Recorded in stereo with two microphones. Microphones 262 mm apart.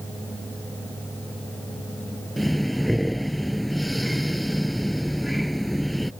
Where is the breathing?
Centre (ahead or behind).